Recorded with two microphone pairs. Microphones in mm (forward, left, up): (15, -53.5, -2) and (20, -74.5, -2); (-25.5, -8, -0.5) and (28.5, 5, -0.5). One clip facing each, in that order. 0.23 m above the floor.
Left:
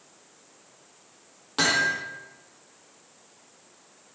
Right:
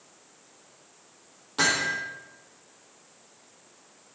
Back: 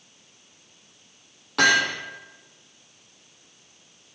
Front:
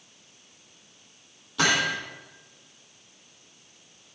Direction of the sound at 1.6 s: 175° left.